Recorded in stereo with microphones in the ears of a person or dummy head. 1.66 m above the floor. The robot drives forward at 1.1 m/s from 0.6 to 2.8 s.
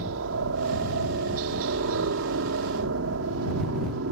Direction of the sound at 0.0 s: 75° right (ahead or behind).